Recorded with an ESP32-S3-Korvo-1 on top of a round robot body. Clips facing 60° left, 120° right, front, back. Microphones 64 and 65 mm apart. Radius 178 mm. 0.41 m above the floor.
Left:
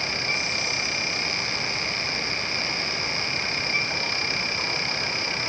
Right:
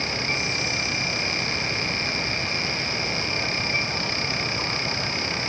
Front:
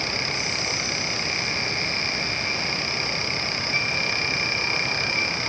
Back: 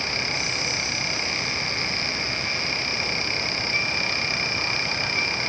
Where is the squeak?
No squeak in this recording.